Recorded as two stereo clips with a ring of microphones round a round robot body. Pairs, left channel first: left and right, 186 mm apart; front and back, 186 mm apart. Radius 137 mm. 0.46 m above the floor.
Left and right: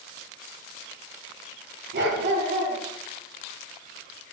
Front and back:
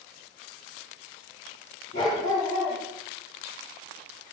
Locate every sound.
1.9 s a dog barking: 65° right, 2.5 m